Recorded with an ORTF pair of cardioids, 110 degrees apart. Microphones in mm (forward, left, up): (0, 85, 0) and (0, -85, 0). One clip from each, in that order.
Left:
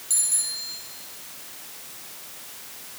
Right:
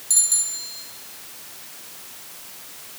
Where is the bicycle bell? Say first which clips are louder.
Right 6 dB; 30° right, 6.5 m.